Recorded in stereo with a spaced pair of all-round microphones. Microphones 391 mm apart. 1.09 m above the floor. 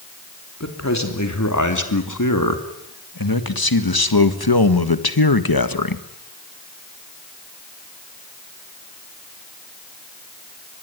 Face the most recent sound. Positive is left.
turn(degrees=55)  # may be behind; listen again after turning